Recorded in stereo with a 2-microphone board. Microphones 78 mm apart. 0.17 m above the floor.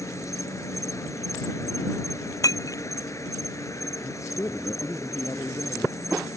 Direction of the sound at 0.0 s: 40° left (ahead or behind).